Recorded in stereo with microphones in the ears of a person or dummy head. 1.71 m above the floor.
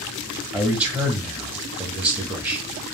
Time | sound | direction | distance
0.5 | a man speaking | 5° right (ahead or behind) | 0.8 m